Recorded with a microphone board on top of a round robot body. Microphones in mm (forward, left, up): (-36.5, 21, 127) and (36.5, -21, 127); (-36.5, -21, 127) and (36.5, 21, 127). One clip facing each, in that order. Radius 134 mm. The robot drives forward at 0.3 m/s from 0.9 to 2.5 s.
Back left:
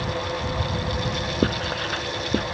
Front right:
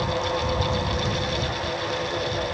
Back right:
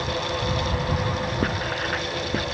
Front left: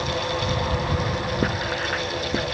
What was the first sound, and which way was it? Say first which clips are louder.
Writing: back left 3 dB, front left 1 dB; 115° left.